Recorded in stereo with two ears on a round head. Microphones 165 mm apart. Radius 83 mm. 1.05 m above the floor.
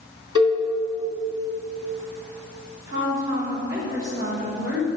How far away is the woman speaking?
About 3.5 m.